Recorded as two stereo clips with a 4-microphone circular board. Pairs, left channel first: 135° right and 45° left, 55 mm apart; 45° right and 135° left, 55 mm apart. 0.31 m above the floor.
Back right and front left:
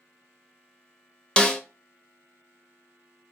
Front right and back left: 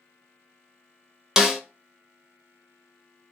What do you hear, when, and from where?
1.4 s a snare drum: 165° right, 0.7 m